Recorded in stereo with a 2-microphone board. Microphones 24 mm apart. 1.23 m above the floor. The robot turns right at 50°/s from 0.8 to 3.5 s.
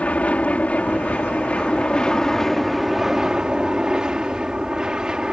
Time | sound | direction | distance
0.0 | an aircraft | 85° left | ?